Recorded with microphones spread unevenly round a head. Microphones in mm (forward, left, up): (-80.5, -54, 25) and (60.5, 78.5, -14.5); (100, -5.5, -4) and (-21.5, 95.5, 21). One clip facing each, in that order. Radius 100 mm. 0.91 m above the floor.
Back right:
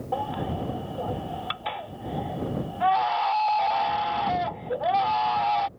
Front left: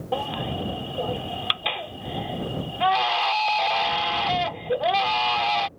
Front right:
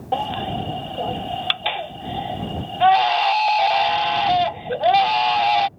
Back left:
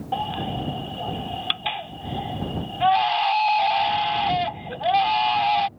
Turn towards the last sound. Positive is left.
turn(degrees=-5)